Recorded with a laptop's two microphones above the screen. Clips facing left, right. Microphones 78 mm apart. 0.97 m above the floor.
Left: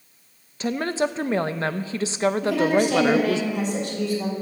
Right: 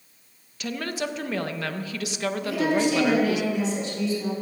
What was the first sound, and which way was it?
A woman speaking, 30° left (ahead or behind).